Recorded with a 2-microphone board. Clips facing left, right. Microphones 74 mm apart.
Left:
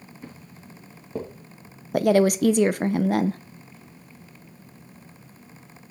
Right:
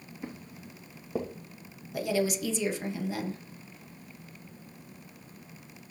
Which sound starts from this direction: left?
A woman speaking, at 1.9 s.